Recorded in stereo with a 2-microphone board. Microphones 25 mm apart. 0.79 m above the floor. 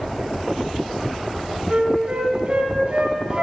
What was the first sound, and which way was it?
A flute, 55° right (ahead or behind).